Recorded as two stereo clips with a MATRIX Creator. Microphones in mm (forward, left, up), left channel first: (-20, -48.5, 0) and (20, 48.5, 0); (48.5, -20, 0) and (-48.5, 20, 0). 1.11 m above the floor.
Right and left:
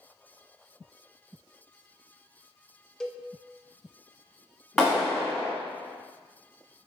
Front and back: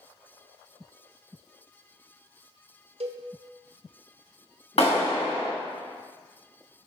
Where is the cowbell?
165° left, 0.5 m.